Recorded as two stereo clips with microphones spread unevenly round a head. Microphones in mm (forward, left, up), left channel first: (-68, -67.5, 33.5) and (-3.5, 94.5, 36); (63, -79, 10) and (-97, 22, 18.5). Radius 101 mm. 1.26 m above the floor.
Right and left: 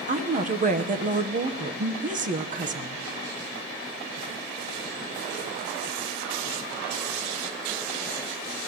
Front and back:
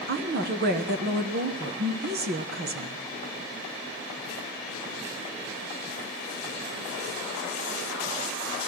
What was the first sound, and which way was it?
A woman speaking, 110° left.